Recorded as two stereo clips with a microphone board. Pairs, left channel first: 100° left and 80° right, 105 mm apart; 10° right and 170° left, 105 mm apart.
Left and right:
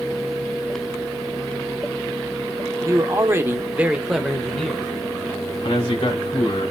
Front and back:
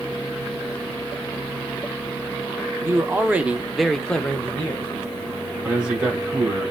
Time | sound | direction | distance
2.8 | a man speaking | 125° right | 1.0 m
5.6 | a man speaking | 90° left | 3 m